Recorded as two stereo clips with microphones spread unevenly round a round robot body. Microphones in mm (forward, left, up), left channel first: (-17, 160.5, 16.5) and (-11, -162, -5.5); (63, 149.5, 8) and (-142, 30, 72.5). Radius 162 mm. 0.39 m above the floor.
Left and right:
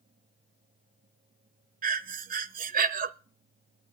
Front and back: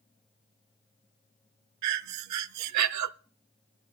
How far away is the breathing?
About 0.6 m.